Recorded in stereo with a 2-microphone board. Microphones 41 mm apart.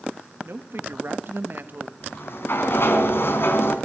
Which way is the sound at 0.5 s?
65° right (ahead or behind).